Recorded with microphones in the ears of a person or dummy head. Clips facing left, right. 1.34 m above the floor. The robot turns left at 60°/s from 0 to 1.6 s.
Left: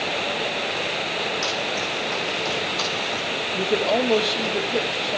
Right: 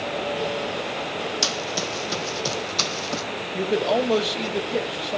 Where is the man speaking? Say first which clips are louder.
Even; centre (ahead or behind), 1.8 m.